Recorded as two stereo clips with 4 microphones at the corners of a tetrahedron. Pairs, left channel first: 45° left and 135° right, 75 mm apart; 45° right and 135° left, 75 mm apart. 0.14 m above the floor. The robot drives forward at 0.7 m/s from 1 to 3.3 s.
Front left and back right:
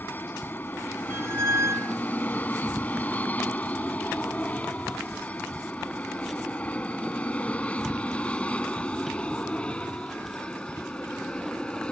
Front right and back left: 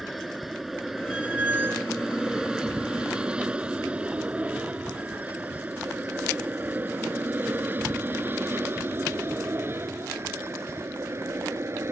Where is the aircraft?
45° left; by 11.9 s 115° left.